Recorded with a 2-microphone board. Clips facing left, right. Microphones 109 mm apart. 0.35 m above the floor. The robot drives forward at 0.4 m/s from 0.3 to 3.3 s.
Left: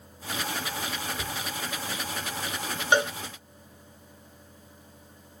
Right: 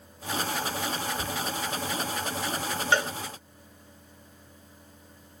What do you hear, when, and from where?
1.1 s a cupboard door: centre (ahead or behind), 0.9 m
2.9 s a cowbell: 20° left (ahead or behind), 1.2 m